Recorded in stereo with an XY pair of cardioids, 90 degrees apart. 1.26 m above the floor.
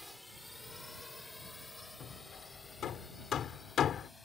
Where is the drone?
10° left; by 4.3 s 30° left.